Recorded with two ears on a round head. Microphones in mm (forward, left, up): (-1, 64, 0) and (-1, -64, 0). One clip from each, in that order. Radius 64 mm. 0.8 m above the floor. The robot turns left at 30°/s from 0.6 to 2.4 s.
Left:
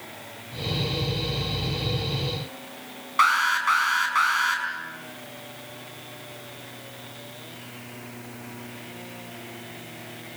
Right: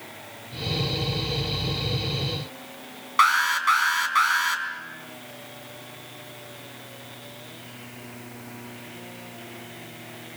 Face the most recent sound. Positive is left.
turn(degrees=-20)  # may be behind; listen again after turning